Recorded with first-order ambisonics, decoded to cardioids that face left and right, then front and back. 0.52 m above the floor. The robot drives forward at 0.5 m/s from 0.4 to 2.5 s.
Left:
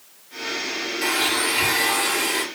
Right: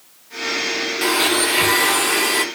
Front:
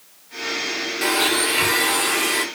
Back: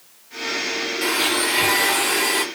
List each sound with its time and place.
1.0 s a blender: 70° right, 1.1 m; by 2.5 s 125° right, 1.2 m